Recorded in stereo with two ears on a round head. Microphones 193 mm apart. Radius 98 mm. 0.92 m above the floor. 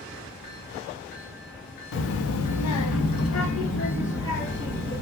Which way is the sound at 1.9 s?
65° left (ahead or behind).